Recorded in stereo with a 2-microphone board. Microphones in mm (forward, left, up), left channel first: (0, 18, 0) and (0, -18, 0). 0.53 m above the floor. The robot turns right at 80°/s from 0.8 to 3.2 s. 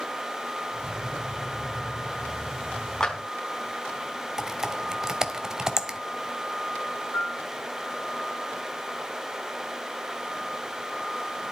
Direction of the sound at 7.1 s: 75° left (ahead or behind).